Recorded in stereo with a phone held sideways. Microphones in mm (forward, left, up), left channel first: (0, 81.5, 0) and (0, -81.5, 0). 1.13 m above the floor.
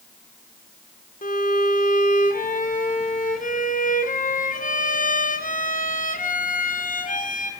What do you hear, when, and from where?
1.2 s a violin: 55° left (ahead or behind), 1.0 m